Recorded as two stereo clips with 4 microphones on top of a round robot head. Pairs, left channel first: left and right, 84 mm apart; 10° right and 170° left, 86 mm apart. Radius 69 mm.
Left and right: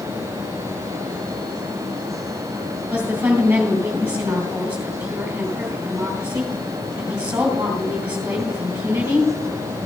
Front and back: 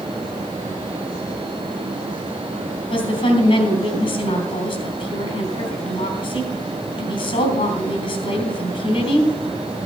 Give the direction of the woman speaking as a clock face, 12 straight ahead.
12 o'clock.